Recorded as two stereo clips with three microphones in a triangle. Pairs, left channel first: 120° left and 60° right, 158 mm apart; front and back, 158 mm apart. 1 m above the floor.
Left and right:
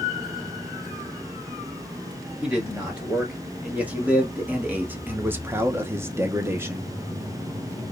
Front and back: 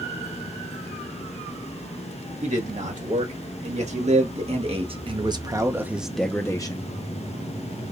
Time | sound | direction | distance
2.4 | a man speaking | 145° right | 2 m